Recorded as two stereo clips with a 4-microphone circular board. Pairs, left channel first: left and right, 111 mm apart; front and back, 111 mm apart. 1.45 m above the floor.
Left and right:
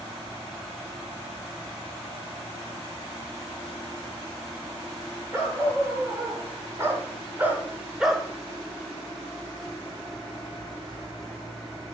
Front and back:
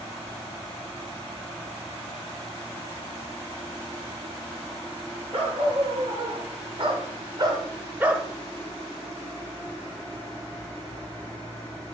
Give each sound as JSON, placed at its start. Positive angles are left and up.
{"t": 5.3, "sound": "a dog barking", "azimuth_deg": -155, "distance_m": 4.5}